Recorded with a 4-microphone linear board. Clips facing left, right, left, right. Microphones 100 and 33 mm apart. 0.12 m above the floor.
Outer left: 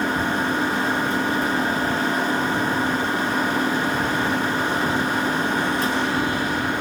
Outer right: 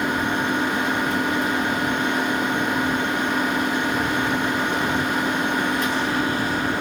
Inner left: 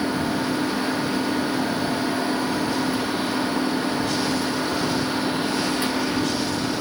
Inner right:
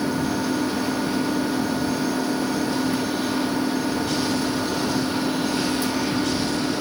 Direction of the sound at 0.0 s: Centre (ahead or behind).